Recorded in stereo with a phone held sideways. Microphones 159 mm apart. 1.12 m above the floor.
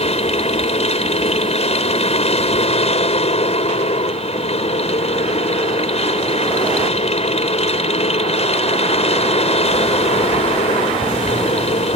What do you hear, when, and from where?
0.0 s a machine running: 45° left (ahead or behind)